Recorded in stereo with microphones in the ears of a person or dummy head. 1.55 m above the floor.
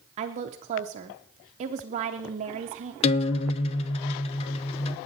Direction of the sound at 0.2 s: 40° right (ahead or behind).